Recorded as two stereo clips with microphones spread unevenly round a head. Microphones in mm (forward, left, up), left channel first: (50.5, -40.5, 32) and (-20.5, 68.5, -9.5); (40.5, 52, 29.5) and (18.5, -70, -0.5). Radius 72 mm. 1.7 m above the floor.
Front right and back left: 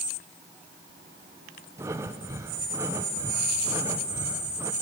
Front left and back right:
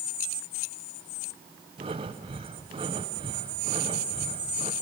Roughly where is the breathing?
Behind.